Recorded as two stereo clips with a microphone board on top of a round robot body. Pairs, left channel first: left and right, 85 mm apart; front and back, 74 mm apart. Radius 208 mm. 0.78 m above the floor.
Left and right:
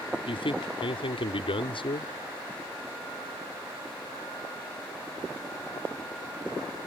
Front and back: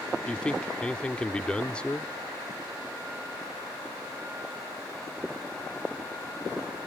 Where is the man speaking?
80° left.